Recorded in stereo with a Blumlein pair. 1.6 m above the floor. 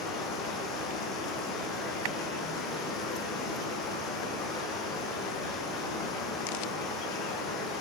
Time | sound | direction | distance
0.0 | running water | 25° left | 7.5 m